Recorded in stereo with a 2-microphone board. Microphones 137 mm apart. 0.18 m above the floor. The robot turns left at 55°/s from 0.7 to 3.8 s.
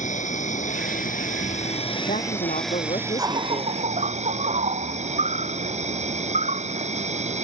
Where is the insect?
110° left; by 7.5 s 60° right.